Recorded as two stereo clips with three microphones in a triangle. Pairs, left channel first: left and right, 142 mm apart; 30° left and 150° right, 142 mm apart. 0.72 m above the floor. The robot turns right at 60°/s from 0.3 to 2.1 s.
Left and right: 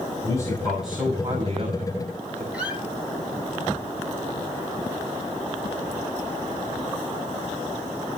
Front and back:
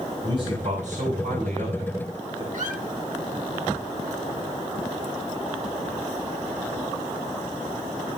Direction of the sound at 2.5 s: 170° right.